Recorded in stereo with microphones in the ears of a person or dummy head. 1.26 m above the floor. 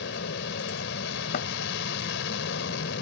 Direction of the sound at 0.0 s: 65° left (ahead or behind).